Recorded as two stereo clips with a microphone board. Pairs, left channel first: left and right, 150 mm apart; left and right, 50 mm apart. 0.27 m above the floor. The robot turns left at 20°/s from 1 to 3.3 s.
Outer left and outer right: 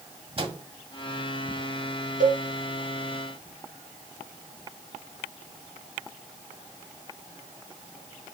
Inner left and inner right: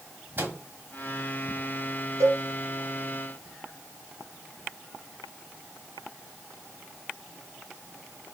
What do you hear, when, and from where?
0.4 s a microwave: 40° right (ahead or behind), 1.5 m
2.2 s a cowbell: 70° right (ahead or behind), 2 m; by 2.4 s 65° right (ahead or behind), 2 m